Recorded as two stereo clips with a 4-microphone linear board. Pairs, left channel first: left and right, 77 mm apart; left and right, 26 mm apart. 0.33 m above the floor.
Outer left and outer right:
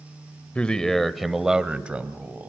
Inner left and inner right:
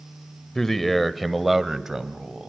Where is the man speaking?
15° left (ahead or behind), 1.1 m; by 2.5 s 25° right (ahead or behind), 1.7 m.